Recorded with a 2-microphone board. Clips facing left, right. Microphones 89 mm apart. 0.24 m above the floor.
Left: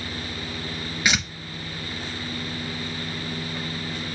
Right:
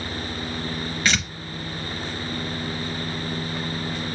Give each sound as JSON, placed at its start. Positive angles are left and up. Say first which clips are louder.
{"t": 1.1, "sound": "tearing paper", "louder": "even", "side_deg": 15, "distance_m": 0.6}